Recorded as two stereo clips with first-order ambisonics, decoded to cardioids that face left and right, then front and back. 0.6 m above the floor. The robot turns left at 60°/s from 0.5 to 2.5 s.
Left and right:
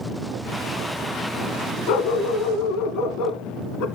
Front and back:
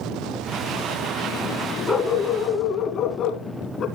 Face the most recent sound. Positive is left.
turn(degrees=60)